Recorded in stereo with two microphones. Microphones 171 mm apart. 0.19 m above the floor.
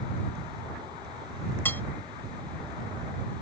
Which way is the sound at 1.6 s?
10° left (ahead or behind).